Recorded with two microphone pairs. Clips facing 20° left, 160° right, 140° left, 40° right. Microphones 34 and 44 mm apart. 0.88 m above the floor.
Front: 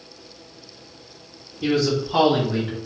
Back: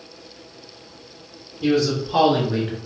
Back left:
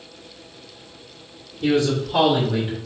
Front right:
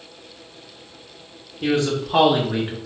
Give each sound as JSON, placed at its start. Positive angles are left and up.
{"t": 1.6, "sound": "a man speaking", "azimuth_deg": -55, "distance_m": 1.1}